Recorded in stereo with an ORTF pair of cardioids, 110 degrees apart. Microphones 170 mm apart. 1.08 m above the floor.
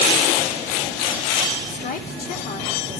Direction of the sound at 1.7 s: 55° left.